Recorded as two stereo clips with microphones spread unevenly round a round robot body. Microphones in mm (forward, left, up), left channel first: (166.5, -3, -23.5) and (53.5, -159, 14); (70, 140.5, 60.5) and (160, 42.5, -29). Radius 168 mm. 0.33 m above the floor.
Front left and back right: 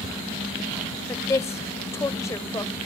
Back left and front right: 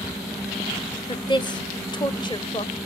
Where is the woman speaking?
30° left, 0.9 m.